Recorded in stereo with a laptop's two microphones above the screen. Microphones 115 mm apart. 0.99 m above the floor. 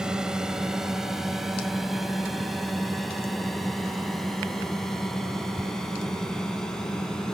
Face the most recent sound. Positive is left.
turn(degrees=5)  # may be behind; listen again after turning